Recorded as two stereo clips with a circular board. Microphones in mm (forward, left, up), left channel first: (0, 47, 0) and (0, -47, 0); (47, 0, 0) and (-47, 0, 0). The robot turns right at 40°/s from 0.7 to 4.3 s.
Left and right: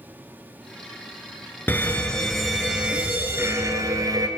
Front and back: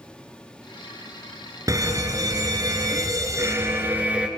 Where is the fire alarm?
150° left, 3 m; by 4.3 s 105° right, 3 m.